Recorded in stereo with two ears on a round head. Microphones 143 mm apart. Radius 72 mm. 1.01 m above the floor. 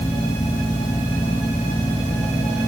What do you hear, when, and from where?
Only background noise.